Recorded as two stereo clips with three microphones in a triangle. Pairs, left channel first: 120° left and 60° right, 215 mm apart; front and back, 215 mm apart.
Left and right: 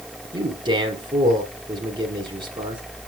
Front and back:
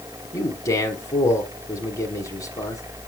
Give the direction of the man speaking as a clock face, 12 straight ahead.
2 o'clock.